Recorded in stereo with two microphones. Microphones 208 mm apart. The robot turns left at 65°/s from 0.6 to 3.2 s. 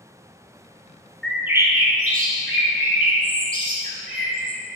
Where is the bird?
5° left, 1.2 m; by 4.6 s 125° right, 1.2 m.